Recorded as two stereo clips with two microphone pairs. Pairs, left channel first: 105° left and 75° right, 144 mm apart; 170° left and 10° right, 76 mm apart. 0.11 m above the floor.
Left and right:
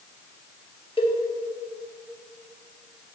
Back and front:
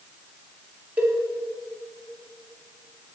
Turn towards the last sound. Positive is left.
turn(degrees=55)